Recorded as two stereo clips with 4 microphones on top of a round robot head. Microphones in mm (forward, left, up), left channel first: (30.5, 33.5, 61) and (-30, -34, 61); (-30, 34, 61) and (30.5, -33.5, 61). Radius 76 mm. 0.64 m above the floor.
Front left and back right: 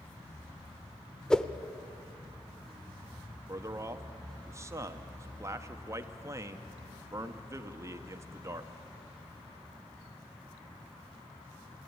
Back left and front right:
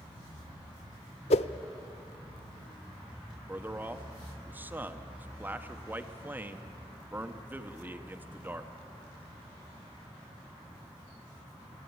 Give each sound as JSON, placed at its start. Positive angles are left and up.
{"t": 1.3, "sound": "a whoosh", "azimuth_deg": 130, "distance_m": 0.6}
{"t": 3.5, "sound": "a man speaking", "azimuth_deg": -105, "distance_m": 1.0}